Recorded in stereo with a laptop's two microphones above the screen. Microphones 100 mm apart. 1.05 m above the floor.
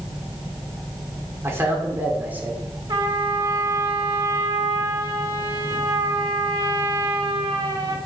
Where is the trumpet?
55° right (ahead or behind), 1.4 m.